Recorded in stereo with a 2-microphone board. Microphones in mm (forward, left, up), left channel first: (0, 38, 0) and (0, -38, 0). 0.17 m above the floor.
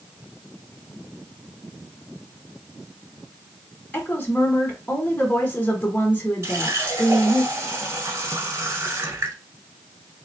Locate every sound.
3.9 s a woman speaking: 20° left (ahead or behind), 1.3 m
6.4 s a running tap: 35° right (ahead or behind), 1.3 m